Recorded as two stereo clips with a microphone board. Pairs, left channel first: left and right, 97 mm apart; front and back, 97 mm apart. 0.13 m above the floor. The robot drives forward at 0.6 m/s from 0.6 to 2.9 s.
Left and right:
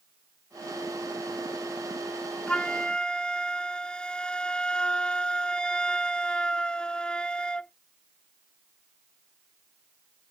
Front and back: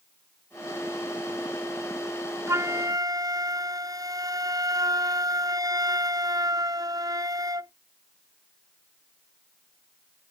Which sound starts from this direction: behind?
A flute, at 2.5 s.